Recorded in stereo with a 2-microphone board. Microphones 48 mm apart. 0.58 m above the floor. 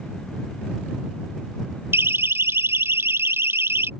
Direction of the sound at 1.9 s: 65° right (ahead or behind).